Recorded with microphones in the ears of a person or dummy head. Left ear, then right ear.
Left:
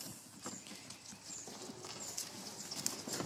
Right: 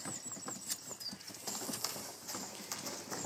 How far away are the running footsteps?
About 4 m.